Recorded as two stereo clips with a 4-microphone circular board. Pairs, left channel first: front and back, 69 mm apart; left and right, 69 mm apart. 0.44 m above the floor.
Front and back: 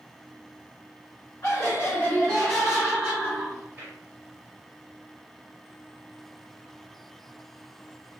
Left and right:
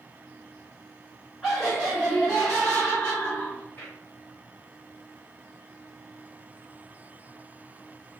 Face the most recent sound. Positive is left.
turn(degrees=140)